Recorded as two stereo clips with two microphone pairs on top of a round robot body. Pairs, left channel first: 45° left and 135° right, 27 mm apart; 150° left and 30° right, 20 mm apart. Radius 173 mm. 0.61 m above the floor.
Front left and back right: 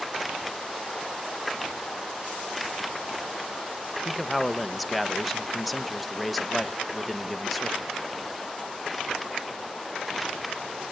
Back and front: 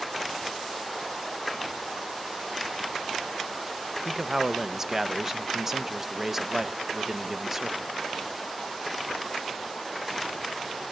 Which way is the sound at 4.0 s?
30° right.